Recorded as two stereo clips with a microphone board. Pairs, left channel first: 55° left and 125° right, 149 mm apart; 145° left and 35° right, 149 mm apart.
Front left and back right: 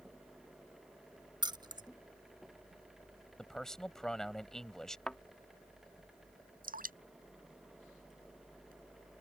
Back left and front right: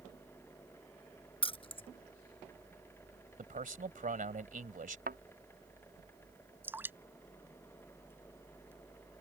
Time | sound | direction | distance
1.4 | keys jangling | 175° right | ?
3.4 | a man speaking | 30° right | ?
5.1 | a thud | 30° right | ?
6.6 | dripping | 110° right | ?